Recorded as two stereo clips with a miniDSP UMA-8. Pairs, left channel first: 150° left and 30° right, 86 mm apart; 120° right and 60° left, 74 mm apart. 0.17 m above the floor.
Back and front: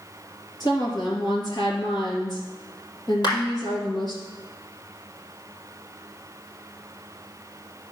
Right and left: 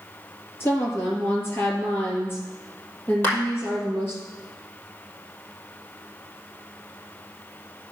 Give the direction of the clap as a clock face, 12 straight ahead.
6 o'clock.